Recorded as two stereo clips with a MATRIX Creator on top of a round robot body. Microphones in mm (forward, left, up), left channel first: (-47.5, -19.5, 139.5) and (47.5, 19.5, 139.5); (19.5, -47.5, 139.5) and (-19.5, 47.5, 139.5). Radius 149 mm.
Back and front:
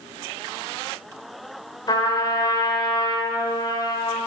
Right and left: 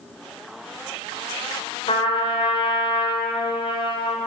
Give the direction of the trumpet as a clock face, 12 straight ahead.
4 o'clock.